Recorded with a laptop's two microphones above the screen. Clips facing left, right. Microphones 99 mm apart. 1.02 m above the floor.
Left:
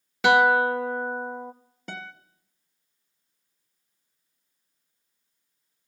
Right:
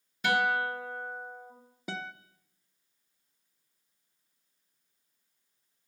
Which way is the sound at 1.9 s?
5° right (ahead or behind).